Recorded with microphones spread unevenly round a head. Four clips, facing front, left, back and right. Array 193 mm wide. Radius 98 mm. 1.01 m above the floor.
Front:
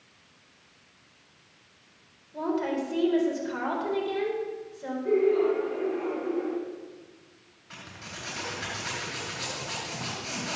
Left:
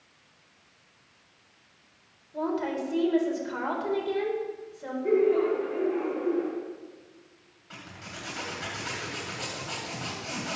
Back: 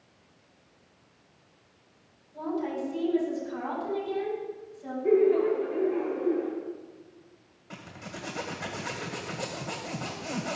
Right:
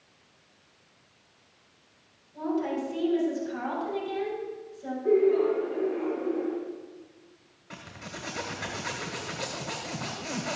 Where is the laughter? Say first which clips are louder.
Right 1 dB, back 1 dB; 150° left, 2.5 m.